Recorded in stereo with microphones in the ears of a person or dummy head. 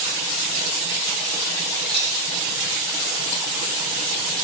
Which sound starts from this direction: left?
A dropped coin, at 1.9 s.